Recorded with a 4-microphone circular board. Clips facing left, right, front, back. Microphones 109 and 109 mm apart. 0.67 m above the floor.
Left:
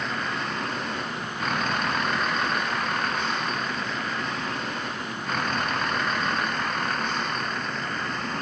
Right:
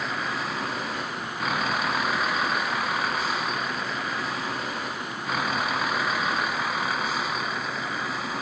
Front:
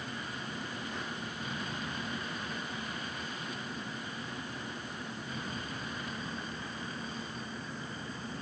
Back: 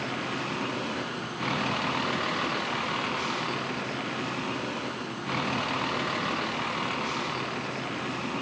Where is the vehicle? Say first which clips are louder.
Even, back 9 dB; 175° right.